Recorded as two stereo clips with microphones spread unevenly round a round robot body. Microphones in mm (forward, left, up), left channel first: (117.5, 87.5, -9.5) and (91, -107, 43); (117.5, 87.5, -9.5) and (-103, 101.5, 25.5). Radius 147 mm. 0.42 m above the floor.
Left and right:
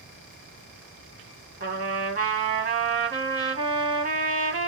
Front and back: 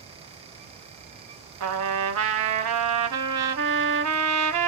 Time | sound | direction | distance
1.6 | a trumpet | 160° right | 0.7 m